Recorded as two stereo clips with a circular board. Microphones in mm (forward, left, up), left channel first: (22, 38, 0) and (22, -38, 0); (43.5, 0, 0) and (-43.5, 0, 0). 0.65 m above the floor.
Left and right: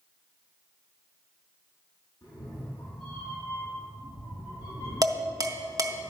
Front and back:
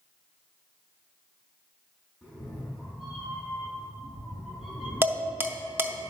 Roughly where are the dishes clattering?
Behind right.